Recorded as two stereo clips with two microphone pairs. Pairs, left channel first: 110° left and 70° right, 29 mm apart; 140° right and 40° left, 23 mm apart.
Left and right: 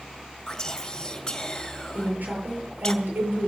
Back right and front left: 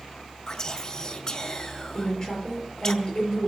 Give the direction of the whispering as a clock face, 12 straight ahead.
6 o'clock.